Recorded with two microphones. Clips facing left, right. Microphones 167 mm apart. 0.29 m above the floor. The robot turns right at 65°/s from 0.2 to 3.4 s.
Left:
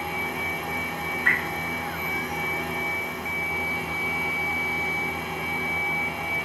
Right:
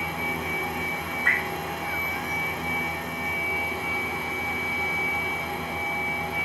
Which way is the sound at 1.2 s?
70° left (ahead or behind).